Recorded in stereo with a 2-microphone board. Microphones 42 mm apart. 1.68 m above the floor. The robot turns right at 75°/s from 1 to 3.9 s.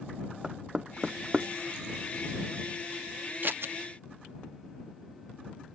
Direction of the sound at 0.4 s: 20° right (ahead or behind).